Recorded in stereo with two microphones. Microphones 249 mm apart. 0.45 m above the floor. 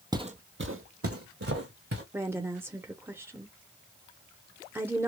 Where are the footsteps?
15° right (ahead or behind), 0.8 m; by 2.0 s 70° right (ahead or behind), 2 m.